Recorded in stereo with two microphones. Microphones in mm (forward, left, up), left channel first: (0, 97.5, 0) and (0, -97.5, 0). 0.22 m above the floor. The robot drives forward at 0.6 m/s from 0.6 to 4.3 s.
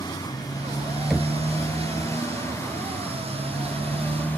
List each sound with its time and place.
0.0 s a motorcycle: 20° left (ahead or behind); by 4.4 s 10° left (ahead or behind)
1.1 s knocking: centre (ahead or behind)